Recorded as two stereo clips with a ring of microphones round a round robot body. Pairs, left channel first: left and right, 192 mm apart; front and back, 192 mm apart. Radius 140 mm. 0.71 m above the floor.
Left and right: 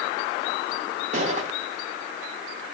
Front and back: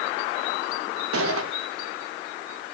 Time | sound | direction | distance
1.1 | a gunshot | 155° right | 0.6 m